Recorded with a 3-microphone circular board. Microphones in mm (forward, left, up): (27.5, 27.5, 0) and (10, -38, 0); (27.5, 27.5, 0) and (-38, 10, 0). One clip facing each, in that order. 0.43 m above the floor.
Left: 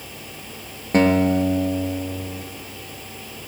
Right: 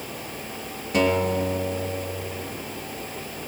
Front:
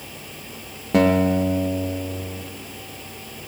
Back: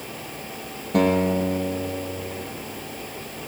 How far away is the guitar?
About 2.5 m.